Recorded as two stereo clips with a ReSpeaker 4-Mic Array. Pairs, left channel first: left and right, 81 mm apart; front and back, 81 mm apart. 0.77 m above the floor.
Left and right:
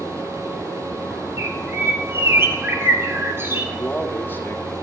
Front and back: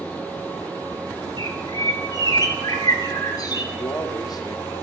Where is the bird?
30° right, 2 m.